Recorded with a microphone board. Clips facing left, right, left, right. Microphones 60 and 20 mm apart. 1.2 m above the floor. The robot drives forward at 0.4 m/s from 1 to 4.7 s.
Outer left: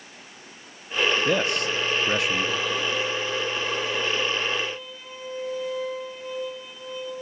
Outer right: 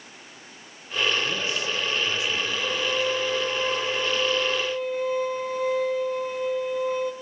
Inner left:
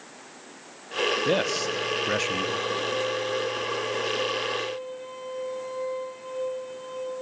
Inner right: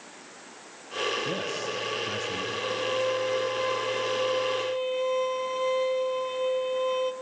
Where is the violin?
35° right (ahead or behind), 1.1 m; by 7.1 s 55° right (ahead or behind), 0.7 m.